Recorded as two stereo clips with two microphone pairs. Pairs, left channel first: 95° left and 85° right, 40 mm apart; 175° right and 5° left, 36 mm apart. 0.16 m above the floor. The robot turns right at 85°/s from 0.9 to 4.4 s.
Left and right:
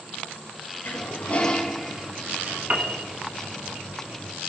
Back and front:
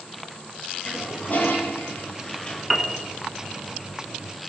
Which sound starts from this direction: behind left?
A toilet flushing, at 0.8 s.